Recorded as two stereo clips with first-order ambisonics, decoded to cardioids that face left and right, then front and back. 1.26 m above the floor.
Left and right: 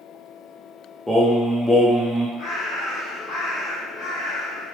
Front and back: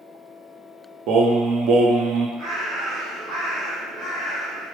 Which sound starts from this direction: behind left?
A bird, at 2.4 s.